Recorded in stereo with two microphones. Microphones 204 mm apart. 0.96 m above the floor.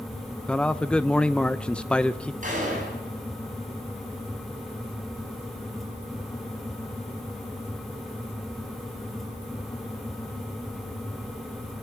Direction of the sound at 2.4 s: 40° right (ahead or behind).